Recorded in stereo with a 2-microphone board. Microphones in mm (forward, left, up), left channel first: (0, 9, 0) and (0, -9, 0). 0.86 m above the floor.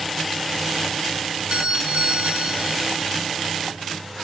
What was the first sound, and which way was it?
A doorbell, 80° right.